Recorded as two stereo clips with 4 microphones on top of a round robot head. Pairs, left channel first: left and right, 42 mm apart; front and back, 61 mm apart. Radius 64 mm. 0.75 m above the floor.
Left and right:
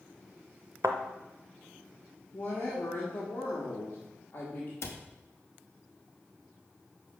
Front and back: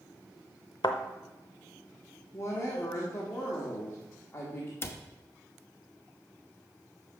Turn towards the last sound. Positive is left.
turn(degrees=55)